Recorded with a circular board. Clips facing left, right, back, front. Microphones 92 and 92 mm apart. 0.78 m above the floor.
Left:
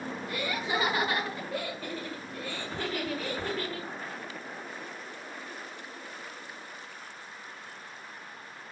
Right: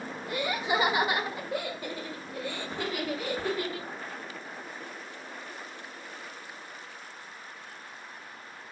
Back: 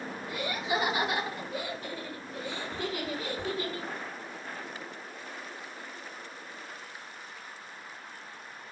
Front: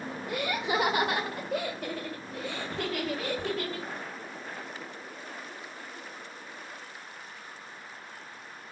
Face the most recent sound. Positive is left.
turn(degrees=-15)